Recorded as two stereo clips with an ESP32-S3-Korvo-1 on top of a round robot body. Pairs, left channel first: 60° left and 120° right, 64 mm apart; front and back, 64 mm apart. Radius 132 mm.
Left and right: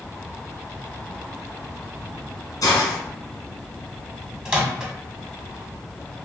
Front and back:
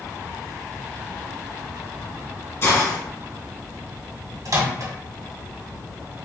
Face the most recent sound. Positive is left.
turn(degrees=170)